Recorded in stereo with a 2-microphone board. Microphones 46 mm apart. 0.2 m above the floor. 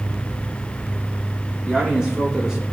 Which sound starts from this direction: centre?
A man speaking, at 1.6 s.